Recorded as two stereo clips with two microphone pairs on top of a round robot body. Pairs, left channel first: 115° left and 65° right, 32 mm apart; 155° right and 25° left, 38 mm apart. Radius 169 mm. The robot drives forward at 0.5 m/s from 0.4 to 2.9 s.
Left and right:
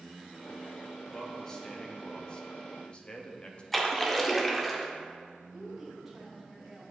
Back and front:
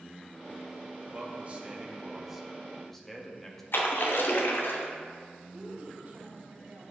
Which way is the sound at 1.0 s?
45° left.